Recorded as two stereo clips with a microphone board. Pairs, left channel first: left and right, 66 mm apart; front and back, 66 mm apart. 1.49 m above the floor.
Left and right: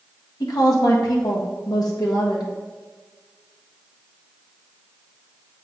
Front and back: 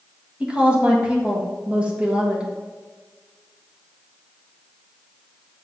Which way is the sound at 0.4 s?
105° left.